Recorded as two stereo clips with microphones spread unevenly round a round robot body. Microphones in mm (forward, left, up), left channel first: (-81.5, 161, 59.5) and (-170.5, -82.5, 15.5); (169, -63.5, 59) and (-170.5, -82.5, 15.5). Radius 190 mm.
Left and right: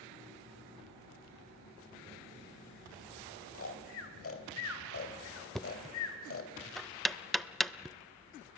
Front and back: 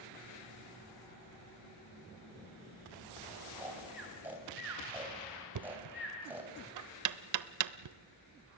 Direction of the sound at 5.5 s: 165° left.